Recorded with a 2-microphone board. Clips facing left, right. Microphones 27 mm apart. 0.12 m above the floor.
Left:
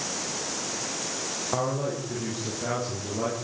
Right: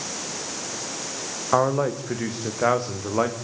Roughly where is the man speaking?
Right.